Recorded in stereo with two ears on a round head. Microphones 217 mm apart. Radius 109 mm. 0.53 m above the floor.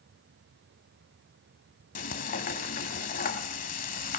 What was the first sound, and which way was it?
Frying, 35° left (ahead or behind).